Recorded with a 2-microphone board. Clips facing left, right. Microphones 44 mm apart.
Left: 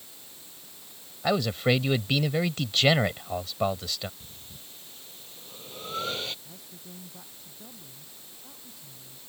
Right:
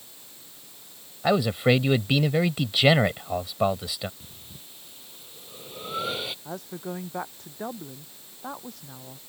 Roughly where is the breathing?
Centre.